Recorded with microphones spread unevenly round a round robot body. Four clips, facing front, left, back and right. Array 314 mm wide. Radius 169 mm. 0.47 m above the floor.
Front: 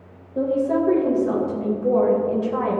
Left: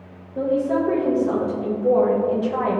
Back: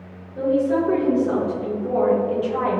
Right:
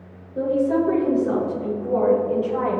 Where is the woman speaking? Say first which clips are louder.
Right 1 dB, back 1 dB; 5° left, 3 m; by 2.8 s 65° left, 3 m.